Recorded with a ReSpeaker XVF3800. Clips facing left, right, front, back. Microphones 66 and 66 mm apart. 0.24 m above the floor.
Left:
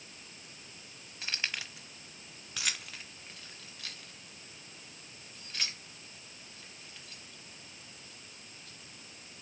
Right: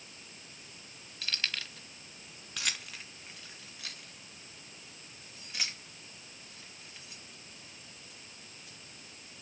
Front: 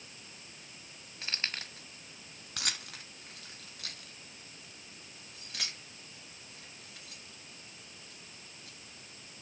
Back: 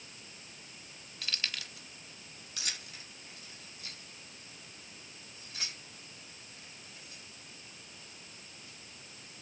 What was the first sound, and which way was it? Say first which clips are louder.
Keys jangling: even, front 1 dB; 40° left.